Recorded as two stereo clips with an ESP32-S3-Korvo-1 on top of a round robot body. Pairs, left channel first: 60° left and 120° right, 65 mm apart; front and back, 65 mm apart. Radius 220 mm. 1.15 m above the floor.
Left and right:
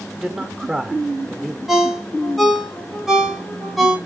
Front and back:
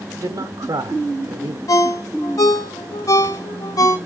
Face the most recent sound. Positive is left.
turn(degrees=-30)